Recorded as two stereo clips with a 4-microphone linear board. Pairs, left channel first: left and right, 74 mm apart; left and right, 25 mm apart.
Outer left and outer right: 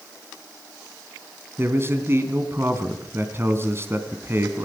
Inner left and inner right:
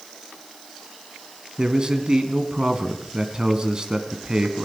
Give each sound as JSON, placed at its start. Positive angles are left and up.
{"t": 1.6, "sound": "a man speaking", "side_deg": -35, "distance_m": 2.5}